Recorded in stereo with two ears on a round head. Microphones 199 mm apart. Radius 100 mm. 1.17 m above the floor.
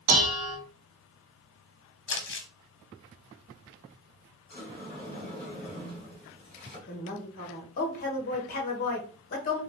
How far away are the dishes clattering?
About 1.1 m.